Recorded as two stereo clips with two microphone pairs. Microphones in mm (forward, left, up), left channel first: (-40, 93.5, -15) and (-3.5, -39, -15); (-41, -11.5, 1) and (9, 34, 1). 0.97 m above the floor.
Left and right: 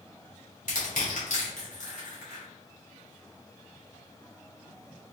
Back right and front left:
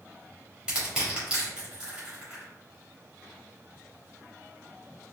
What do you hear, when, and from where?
0.7 s crushing: 115° left, 1.6 m